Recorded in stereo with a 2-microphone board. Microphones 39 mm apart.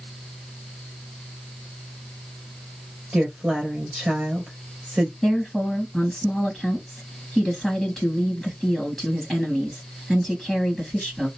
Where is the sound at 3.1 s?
30° right (ahead or behind), 3 m.